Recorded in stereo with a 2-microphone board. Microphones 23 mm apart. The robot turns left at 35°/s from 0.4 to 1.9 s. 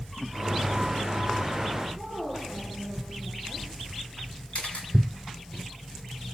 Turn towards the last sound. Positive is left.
turn(degrees=60)  # may be behind; listen again after turning